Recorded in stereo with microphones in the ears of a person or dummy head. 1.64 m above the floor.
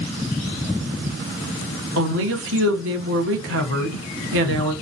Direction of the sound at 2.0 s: 75° right (ahead or behind).